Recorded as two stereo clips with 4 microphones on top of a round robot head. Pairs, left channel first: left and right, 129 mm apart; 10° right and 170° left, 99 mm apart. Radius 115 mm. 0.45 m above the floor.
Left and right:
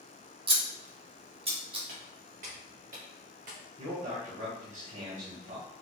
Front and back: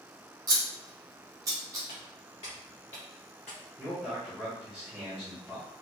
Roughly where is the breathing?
I don't hear breathing.